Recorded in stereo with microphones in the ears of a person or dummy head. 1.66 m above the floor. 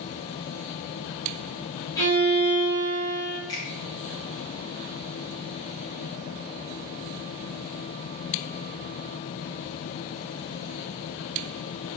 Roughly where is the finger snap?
Centre.